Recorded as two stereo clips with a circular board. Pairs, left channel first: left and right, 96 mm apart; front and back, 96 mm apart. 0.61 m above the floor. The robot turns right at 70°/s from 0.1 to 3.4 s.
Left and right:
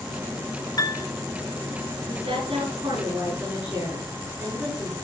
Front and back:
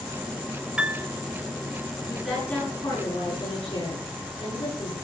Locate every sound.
0.8 s a piano: 105° left, 1.6 m; by 1.1 s 125° left, 1.6 m
2.1 s a woman speaking: 110° right, 9 m; by 4.9 s 20° right, 9 m